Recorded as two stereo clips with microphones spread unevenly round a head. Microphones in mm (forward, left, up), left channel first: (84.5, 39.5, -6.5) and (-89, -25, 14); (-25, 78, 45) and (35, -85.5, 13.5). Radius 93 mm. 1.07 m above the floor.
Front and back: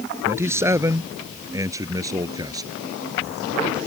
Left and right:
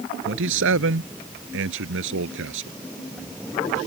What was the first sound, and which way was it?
A man speaking, 80° right.